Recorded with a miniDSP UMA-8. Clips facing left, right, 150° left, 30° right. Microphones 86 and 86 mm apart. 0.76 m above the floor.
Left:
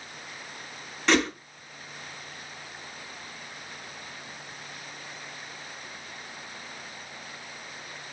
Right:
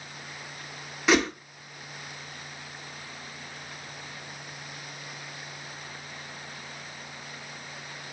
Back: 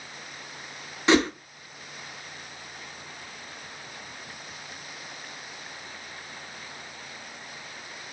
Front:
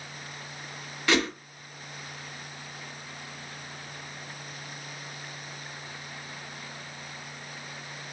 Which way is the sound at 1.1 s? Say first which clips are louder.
Right 1 dB, back 5 dB; 165° right.